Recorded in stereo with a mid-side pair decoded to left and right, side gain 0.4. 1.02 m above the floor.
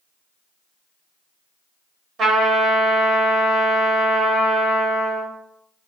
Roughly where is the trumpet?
Ahead right.